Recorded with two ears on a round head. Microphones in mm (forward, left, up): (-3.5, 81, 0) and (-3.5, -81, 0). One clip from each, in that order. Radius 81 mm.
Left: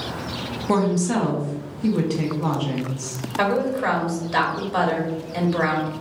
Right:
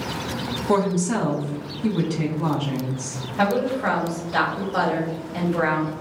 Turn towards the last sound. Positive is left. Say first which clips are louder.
# even
turn(degrees=50)  # may be behind; listen again after turning